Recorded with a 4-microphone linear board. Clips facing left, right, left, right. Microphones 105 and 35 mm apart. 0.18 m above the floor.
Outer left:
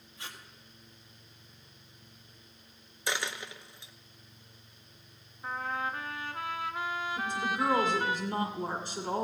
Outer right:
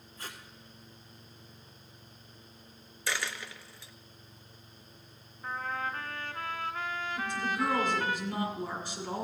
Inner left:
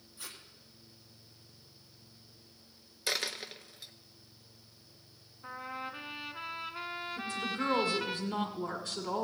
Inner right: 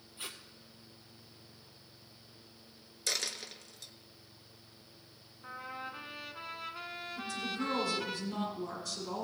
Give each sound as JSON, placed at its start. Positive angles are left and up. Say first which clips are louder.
{"t": 0.2, "sound": "tape being pulled", "louder": "outer right 1 dB, inner right 3 dB", "side_deg": -45, "distance_m": 1.6}
{"t": 3.1, "sound": "a dropped coin", "louder": "outer left 1 dB, inner left 2 dB", "side_deg": 20, "distance_m": 0.6}
{"t": 5.4, "sound": "a trumpet", "louder": "outer left 1 dB, inner left 2 dB", "side_deg": 10, "distance_m": 1.1}
{"t": 7.2, "sound": "a woman speaking", "louder": "even, inner left 1 dB", "side_deg": 30, "distance_m": 1.6}